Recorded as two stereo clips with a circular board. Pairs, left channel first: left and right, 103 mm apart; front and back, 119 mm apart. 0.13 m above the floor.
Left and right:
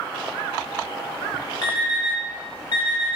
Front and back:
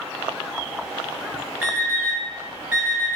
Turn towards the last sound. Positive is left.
turn(degrees=110)